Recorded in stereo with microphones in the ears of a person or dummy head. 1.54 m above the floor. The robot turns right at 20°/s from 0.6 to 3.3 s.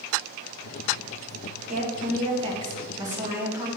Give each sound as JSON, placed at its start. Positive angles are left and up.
{"t": 1.7, "sound": "a woman speaking", "azimuth_deg": -40, "distance_m": 1.8}